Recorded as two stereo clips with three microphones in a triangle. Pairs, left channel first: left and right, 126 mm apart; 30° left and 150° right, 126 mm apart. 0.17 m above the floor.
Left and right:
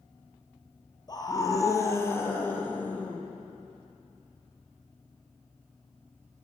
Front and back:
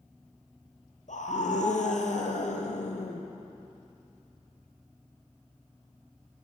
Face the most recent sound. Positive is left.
turn(degrees=10)